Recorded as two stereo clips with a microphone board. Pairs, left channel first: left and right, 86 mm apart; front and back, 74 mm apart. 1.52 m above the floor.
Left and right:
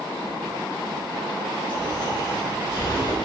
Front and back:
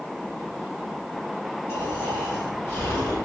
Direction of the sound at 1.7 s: 60° left.